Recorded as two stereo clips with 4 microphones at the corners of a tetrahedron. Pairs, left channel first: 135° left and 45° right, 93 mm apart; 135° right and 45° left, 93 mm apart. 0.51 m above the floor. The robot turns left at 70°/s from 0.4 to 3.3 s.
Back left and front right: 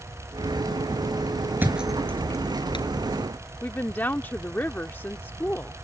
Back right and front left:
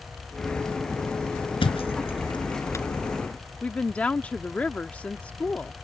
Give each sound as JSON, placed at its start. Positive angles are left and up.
{"t": 1.6, "sound": "a thud", "azimuth_deg": -110}
{"t": 3.6, "sound": "a woman speaking", "azimuth_deg": 170}